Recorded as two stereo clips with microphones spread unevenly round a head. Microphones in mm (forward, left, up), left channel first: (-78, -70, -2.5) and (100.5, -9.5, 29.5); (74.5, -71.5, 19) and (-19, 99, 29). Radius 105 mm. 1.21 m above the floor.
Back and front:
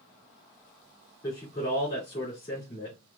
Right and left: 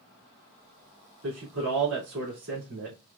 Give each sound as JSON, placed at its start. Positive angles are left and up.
{"t": 1.2, "sound": "a man speaking", "azimuth_deg": 140, "distance_m": 2.5}